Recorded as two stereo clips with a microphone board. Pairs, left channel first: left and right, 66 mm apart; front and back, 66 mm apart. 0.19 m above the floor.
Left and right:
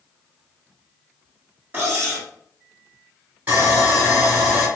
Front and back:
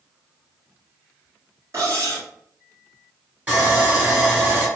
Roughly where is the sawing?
Behind right.